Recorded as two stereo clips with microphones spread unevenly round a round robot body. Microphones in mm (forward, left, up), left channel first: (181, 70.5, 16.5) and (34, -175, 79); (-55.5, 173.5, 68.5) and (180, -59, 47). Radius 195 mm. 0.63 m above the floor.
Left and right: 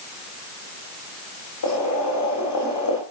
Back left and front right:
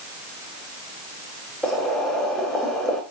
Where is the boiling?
45° left, 8.5 m.